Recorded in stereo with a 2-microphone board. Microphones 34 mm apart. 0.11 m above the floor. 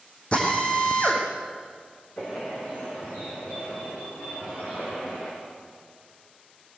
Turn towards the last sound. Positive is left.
turn(degrees=45)  # may be behind; listen again after turning